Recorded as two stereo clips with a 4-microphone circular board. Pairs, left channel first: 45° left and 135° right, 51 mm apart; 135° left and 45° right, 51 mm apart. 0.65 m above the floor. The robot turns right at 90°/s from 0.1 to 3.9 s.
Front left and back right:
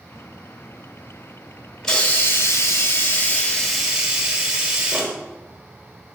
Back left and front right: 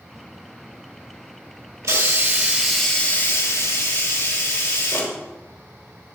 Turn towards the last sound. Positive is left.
turn(degrees=145)